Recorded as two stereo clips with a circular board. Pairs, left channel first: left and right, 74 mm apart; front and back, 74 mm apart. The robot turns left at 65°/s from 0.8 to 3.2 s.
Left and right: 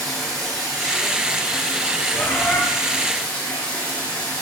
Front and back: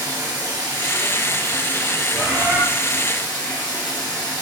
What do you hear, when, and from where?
0.0 s running water: 175° left, 3 m; by 4.4 s 20° left, 3 m
2.1 s a bird: 145° left, 1.4 m; by 2.6 s 115° left, 1.4 m